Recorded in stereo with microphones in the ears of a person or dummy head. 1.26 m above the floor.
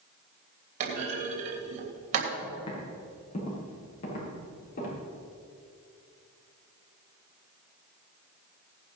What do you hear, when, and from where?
0.8 s a clunk: 40° right (ahead or behind), 3 m
2.4 s footsteps: 30° left (ahead or behind), 6 m; by 5.0 s 40° left (ahead or behind), 9.5 m